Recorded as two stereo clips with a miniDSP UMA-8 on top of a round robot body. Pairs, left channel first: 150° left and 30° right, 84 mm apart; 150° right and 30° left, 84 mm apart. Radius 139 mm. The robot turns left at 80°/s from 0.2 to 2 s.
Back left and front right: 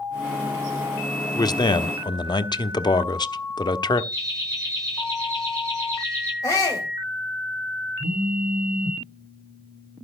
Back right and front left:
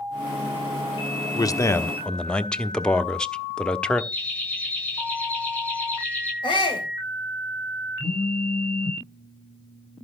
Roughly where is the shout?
Behind.